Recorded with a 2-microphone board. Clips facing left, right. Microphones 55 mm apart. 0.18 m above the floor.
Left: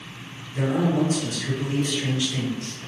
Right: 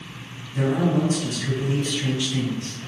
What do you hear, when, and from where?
0.5 s a man speaking: 15° right (ahead or behind), 1.8 m